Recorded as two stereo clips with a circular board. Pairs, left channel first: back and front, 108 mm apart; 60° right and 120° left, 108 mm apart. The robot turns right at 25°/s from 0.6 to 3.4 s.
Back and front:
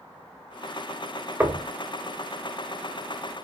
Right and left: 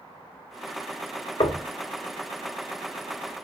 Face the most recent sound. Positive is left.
turn(degrees=-20)